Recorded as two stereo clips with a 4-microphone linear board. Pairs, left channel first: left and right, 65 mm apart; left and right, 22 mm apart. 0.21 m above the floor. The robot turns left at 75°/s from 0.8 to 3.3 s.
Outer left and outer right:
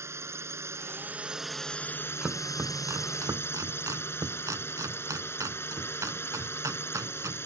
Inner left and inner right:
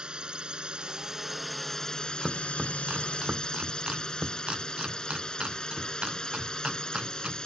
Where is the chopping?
15° right (ahead or behind); by 7.5 s 55° right (ahead or behind).